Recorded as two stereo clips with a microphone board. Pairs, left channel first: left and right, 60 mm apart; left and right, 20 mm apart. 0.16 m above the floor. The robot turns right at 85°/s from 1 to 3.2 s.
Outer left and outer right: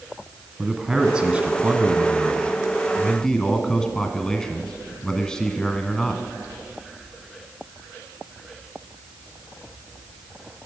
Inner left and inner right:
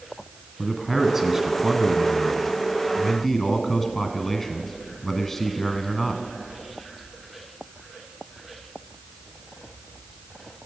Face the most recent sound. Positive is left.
turn(degrees=10)  # may be behind; listen again after turning